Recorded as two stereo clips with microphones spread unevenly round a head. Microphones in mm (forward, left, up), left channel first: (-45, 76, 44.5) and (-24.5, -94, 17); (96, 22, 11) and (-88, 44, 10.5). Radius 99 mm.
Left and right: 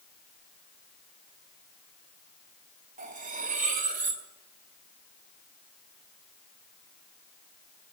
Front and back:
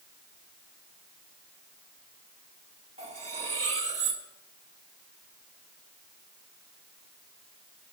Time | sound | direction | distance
3.0 | cutlery clinking | 130° right | 1.8 m